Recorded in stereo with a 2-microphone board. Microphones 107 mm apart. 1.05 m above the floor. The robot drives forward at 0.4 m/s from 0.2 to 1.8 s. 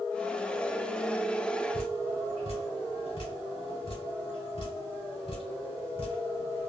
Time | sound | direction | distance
1.7 | dripping | 65° left (ahead or behind) | 1.6 m